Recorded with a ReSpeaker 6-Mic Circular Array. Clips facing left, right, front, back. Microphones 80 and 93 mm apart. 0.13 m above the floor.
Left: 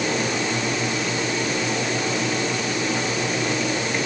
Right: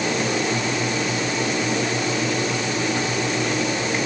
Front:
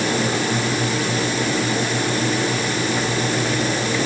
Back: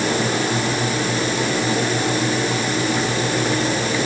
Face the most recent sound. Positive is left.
No sound to turn to.